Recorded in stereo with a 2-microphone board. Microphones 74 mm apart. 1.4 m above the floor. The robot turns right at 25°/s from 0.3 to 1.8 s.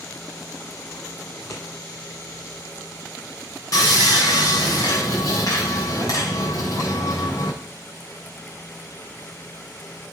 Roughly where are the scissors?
Left.